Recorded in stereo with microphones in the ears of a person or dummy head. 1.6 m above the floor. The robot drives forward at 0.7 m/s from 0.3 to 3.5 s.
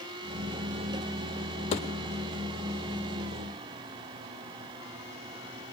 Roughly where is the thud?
Left.